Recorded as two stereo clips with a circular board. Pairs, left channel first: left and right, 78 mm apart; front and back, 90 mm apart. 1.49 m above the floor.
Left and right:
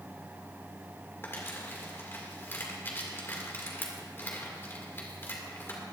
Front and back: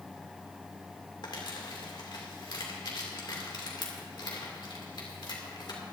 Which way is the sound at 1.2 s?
30° left.